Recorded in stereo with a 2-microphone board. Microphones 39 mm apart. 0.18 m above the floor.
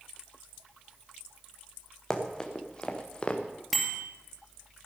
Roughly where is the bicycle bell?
Centre.